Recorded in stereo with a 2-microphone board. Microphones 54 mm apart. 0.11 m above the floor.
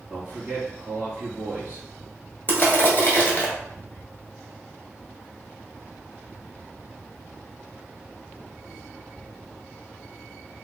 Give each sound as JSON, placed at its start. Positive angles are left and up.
{"t": 0.1, "sound": "a man speaking", "side_deg": -25, "distance_m": 2.0}
{"t": 2.5, "sound": "crushing", "side_deg": 40, "distance_m": 1.1}